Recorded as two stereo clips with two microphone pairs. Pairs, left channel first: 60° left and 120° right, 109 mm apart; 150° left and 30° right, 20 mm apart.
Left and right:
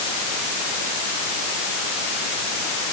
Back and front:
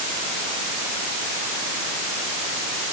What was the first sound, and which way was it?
Only background noise.